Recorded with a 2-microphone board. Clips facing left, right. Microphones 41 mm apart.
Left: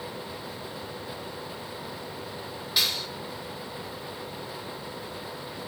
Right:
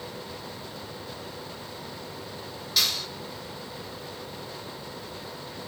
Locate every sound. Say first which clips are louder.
2.8 s a clap: even; 20° left (ahead or behind), 6.5 m